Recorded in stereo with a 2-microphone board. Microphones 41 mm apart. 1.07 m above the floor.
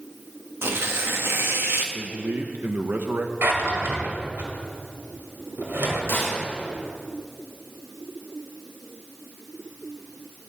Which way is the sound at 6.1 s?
65° left (ahead or behind).